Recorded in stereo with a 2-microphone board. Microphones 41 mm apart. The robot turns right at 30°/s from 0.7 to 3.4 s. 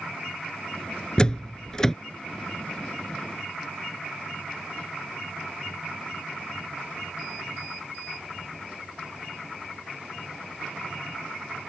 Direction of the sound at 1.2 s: 20° left (ahead or behind).